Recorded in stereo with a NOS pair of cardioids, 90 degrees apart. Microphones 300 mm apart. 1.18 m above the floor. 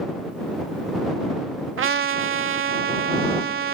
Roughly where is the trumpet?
Ahead right.